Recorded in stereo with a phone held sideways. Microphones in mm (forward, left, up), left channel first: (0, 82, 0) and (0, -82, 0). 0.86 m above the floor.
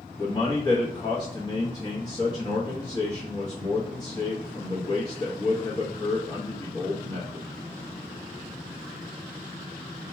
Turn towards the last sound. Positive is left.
turn(degrees=25)  # may be behind; listen again after turning